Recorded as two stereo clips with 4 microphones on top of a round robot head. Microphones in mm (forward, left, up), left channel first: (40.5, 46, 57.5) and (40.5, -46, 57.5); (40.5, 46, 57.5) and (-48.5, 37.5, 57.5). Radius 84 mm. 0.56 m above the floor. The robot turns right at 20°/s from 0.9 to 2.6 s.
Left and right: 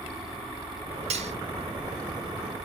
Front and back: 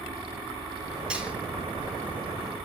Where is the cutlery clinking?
95° right, 2.5 m; by 1.3 s 90° right, 2.5 m.